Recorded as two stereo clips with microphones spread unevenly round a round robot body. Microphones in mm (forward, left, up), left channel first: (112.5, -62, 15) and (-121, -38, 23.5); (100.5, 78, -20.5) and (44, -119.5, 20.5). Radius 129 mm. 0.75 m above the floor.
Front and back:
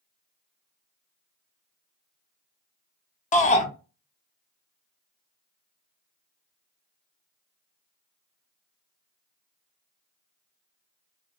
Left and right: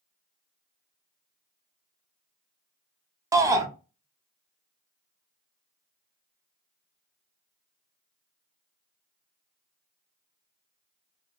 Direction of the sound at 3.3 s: 25° right.